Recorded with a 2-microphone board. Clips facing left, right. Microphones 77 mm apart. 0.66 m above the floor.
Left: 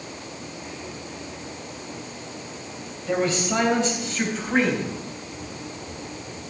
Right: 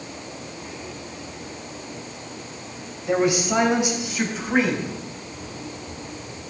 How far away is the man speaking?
About 3.5 m.